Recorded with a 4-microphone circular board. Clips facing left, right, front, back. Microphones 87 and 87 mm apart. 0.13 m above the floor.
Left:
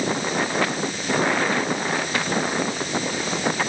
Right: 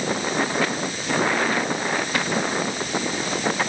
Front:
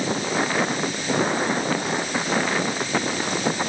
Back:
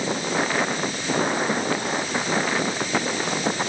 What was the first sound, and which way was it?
Only background noise.